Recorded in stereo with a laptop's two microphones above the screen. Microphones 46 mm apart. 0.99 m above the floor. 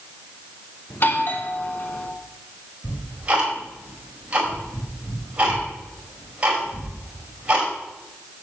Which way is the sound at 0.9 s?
45° left (ahead or behind).